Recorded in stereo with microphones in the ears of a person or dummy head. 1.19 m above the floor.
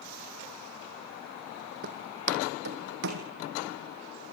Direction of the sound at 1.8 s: 50° right (ahead or behind).